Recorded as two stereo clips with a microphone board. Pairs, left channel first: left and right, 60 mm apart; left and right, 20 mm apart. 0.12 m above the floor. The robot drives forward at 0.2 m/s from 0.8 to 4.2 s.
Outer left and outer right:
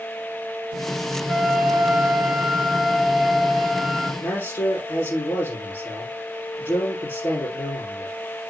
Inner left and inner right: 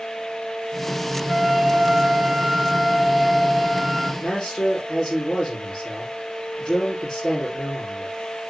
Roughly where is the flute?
Centre.